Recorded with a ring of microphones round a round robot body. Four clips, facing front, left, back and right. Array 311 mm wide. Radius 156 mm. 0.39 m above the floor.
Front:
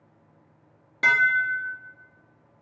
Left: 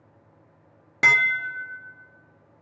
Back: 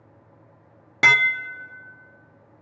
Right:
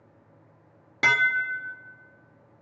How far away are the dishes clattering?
About 0.5 m.